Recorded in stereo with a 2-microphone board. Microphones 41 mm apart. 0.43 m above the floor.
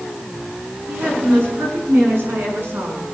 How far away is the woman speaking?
About 6 m.